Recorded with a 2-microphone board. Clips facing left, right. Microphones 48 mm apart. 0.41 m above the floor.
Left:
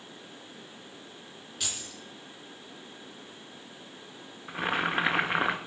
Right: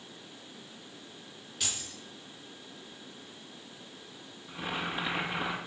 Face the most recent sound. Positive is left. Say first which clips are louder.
# left 6 dB
turn(degrees=55)  # may be behind; listen again after turning